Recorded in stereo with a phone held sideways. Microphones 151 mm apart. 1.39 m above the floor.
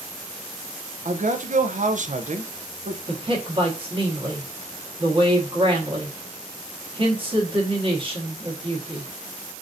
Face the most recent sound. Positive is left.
turn(degrees=-35)  # may be behind; listen again after turning